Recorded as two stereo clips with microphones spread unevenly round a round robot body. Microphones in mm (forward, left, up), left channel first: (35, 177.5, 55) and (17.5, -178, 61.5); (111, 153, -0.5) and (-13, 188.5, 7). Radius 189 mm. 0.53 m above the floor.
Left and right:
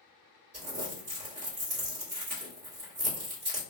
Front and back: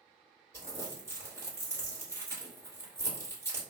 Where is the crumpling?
125° right, 1.7 m.